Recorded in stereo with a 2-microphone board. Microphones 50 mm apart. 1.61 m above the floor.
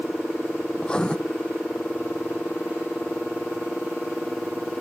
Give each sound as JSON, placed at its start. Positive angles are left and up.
{"t": 0.8, "sound": "writing", "side_deg": 20, "distance_m": 0.5}